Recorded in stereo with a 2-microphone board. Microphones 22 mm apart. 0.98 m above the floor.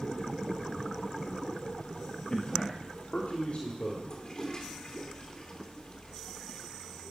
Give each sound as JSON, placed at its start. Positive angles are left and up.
{"t": 2.3, "sound": "a man speaking", "side_deg": 40, "distance_m": 1.5}
{"t": 4.1, "sound": "a toilet flushing", "side_deg": 40, "distance_m": 3.0}